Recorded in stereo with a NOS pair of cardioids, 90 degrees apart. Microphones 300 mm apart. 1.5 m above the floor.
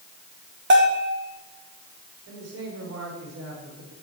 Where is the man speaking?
55° right, 6.5 m.